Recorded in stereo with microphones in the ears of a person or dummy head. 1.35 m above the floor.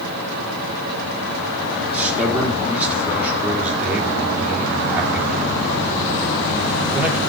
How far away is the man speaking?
About 4 m.